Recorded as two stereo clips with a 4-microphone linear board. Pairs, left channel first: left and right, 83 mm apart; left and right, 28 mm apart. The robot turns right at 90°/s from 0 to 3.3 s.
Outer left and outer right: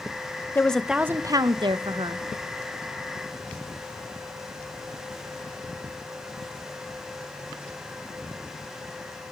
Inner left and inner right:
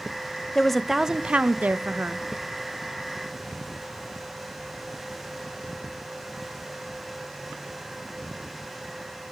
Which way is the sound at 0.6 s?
155° left.